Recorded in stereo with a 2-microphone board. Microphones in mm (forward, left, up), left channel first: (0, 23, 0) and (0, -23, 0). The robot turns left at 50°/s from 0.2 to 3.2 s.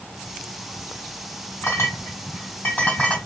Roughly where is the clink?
Left.